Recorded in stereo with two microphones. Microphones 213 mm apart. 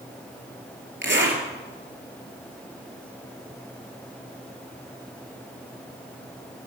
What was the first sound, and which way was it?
A zipper, 60° right (ahead or behind).